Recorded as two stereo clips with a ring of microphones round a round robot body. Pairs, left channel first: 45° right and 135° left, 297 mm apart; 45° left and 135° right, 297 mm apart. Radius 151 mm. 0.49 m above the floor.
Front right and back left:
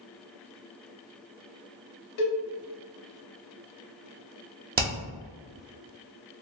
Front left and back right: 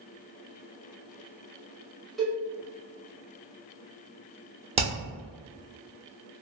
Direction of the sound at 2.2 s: 45° right.